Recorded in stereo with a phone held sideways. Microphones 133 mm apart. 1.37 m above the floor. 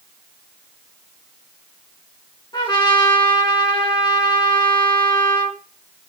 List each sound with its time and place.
2.5 s a trumpet: 30° left (ahead or behind), 1.8 m